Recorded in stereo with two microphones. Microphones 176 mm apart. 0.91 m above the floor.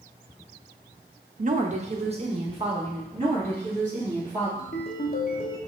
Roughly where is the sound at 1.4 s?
Right.